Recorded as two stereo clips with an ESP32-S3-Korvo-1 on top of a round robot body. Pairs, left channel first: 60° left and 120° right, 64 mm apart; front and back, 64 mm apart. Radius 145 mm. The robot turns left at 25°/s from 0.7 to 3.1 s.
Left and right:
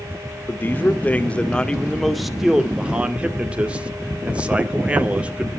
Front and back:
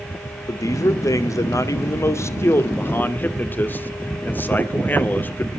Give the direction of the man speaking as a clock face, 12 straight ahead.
12 o'clock.